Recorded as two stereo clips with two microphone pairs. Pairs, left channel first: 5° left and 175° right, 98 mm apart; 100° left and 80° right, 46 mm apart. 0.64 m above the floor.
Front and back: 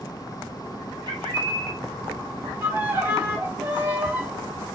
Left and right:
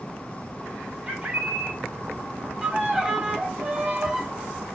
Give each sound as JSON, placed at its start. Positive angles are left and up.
{"t": 1.1, "sound": "a bird", "azimuth_deg": -140, "distance_m": 1.3}
{"t": 2.6, "sound": "a violin", "azimuth_deg": -135, "distance_m": 0.8}